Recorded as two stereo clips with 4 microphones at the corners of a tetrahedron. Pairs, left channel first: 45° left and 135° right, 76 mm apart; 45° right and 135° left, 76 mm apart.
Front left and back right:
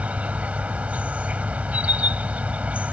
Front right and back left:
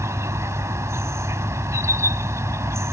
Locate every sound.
0.0 s an insect: 160° left